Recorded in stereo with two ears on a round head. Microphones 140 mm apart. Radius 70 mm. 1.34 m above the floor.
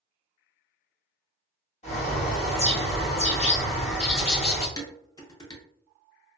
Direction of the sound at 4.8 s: 25° left (ahead or behind).